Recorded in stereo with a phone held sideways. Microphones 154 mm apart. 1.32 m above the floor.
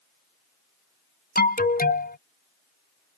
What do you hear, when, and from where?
1.4 s an alarm: 70° left (ahead or behind)